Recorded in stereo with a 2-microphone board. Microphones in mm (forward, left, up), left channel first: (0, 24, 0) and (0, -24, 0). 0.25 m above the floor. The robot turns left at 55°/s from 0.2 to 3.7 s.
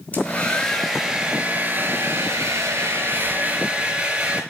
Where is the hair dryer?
35° left, 4.5 m; by 4.4 s 160° right, 4.5 m.